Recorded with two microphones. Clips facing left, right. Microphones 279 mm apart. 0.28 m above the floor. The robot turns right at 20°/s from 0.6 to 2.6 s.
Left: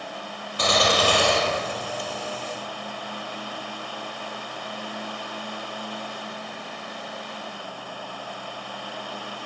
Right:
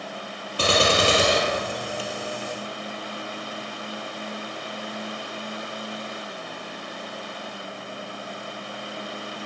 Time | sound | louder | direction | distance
0.6 | a gunshot | right 2 dB | 35° right | 3.5 m